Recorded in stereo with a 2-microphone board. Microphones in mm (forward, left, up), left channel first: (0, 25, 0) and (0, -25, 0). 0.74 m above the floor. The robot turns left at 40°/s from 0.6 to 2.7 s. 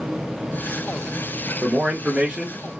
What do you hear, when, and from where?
1.6 s a man speaking: 25° right (ahead or behind), 1.1 m; by 2.6 s 15° right (ahead or behind), 1.1 m